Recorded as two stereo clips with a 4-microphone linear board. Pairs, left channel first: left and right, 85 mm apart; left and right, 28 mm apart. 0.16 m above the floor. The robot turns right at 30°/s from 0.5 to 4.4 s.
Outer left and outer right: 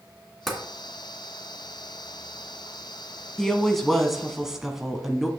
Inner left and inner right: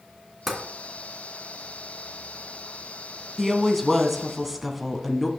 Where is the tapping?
5° left (ahead or behind), 1.8 m; by 0.6 s centre (ahead or behind), 1.8 m.